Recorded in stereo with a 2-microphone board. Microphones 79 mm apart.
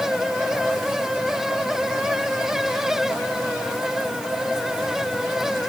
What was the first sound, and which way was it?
Only background noise.